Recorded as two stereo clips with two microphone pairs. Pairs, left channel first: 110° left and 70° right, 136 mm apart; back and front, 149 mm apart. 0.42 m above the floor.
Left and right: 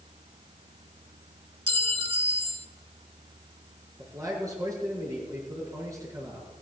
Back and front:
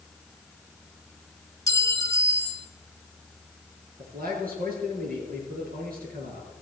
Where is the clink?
115° right, 1.1 m.